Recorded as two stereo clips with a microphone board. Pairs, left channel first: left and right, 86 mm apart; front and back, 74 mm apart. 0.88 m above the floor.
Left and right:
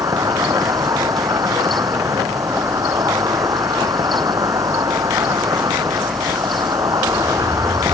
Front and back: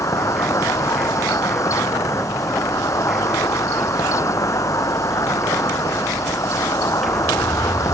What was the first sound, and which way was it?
An insect, 45° right.